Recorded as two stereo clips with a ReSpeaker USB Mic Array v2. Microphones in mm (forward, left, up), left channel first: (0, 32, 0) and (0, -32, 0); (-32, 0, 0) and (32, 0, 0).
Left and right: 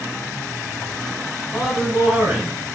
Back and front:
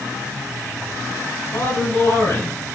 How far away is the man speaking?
About 2 m.